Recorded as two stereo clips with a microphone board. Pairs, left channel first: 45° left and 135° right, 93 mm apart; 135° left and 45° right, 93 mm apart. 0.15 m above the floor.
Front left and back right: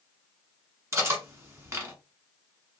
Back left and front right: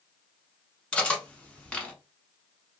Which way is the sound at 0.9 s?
160° right.